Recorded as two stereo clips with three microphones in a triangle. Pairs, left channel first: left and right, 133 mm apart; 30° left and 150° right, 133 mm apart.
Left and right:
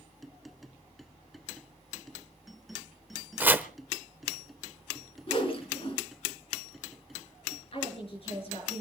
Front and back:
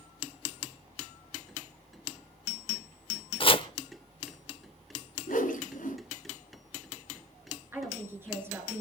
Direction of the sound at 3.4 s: 15° right.